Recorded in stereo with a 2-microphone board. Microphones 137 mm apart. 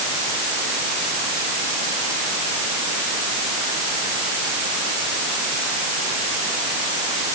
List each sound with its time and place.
Only background noise.